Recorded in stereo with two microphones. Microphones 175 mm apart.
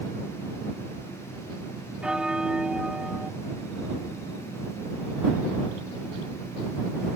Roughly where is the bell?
Centre.